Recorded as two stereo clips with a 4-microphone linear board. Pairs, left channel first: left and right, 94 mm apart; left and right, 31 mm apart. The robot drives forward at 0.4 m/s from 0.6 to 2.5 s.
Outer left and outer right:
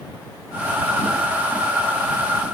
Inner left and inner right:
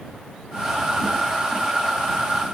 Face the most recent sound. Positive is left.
No sound to turn to.